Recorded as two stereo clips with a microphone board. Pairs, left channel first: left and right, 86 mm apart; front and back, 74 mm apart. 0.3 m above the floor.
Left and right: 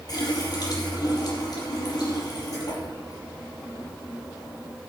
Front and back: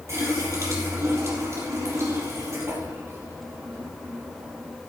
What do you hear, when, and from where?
0.1 s a running tap: 130° left, 4.5 m